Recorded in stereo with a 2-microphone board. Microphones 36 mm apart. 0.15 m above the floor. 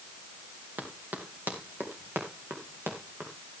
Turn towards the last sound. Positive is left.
turn(degrees=-80)